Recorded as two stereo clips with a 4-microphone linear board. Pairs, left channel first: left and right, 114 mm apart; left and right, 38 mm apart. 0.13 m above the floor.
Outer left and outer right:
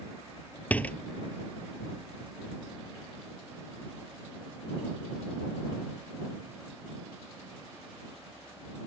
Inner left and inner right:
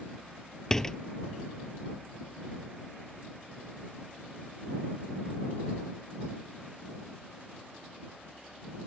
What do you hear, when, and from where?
0.7 s a door slam: 15° left (ahead or behind)